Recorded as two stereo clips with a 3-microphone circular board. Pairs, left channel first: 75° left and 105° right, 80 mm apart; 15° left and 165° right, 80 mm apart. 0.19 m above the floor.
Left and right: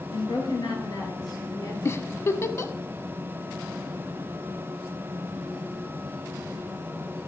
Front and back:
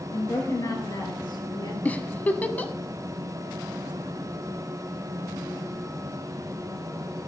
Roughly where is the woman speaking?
Ahead left.